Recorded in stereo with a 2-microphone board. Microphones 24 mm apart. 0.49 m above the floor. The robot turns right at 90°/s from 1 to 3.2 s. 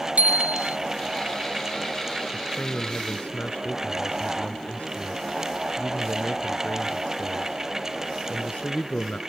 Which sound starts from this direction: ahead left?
A man speaking, at 2.3 s.